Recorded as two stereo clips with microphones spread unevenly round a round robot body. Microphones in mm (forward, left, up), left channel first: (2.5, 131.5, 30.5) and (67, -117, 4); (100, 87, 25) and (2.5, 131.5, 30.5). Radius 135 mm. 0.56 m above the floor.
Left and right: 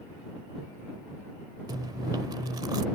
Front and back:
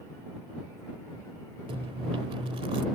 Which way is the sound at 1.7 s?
150° right.